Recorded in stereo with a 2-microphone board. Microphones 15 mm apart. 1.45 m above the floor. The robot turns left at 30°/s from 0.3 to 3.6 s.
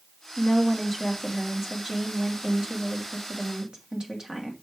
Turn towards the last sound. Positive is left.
turn(degrees=-80)